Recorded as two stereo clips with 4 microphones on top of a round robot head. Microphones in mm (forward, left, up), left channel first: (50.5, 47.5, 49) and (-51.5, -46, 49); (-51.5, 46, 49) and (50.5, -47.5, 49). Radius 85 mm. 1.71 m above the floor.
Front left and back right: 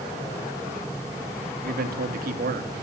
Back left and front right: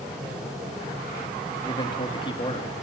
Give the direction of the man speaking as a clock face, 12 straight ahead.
5 o'clock.